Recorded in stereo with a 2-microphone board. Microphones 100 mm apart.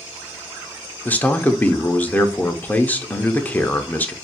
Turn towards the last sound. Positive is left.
turn(degrees=15)  # may be behind; listen again after turning